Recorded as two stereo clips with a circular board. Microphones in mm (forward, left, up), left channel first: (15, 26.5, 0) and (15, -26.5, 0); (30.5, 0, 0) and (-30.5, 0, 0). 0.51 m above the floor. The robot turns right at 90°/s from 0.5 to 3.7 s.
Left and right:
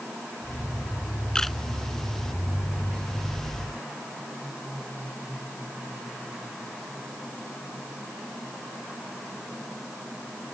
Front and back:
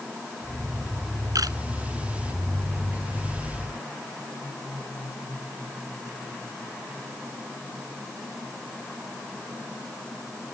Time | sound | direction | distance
1.4 | a camera shutter | 165° left | ?